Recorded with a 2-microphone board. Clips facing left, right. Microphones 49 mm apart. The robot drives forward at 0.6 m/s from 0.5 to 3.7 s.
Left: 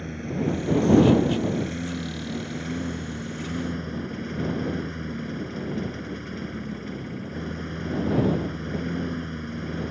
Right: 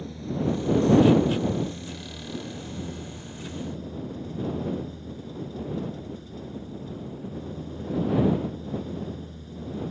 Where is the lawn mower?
50° left (ahead or behind); by 9.9 s 65° left (ahead or behind).